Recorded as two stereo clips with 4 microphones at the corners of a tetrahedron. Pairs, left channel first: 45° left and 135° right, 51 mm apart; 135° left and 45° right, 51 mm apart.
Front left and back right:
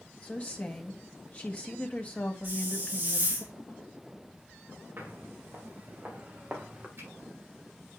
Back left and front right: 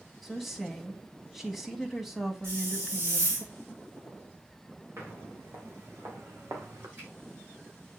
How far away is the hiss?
About 4.5 m.